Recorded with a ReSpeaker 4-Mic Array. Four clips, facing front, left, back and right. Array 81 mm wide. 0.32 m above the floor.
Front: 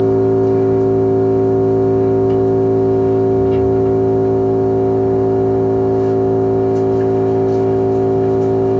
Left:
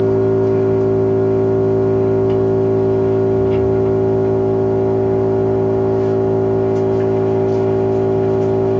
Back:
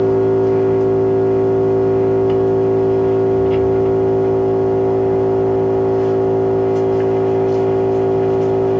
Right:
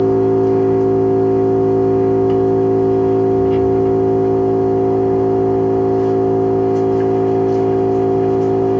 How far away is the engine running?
About 1.7 m.